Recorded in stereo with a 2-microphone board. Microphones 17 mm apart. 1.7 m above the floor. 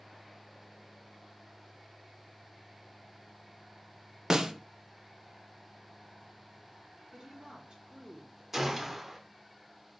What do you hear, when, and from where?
4.3 s a snare drum: 30° right (ahead or behind), 0.5 m
7.1 s a woman speaking: 50° right (ahead or behind), 1.0 m
8.5 s a gunshot: 15° right (ahead or behind), 0.8 m